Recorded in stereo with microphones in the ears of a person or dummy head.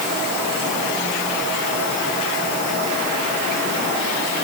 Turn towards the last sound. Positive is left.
No sound to turn to.